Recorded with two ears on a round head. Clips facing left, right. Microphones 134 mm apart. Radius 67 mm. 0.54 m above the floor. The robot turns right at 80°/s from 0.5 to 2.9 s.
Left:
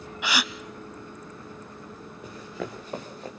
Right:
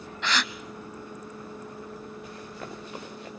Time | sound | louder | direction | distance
0.2 | a gasp | left 1 dB | 10° left (ahead or behind) | 0.6 m
2.2 | running footsteps | left 4 dB | 80° left | 3.5 m